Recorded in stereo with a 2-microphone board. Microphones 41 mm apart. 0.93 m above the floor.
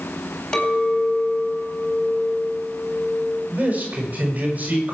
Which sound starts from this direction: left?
A clink, at 0.5 s.